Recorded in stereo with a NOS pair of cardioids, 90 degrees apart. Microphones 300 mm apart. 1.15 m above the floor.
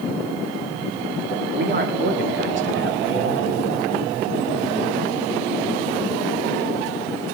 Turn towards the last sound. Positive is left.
turn(degrees=-45)